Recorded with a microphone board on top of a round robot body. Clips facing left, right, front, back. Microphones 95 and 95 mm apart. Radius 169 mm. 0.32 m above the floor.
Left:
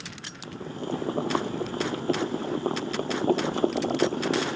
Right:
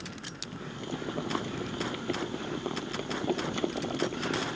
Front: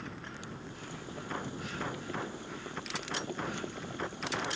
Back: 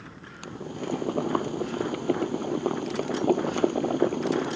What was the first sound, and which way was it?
Boiling, 145° left.